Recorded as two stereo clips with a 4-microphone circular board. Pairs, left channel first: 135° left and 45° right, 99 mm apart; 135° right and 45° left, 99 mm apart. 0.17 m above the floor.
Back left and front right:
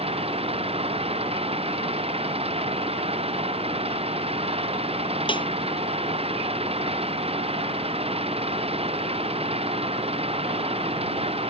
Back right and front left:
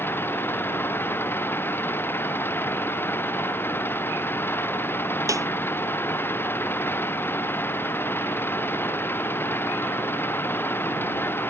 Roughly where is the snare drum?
Left.